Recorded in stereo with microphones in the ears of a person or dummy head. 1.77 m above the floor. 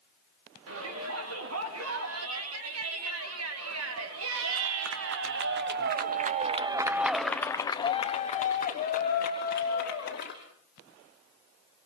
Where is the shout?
80° right, 4.5 m; by 10.4 s 55° left (ahead or behind), 2.5 m.